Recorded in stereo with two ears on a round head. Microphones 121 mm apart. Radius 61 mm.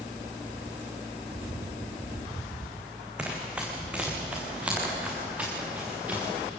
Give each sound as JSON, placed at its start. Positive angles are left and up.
{"t": 3.2, "sound": "running footsteps", "side_deg": -10, "distance_m": 5.0}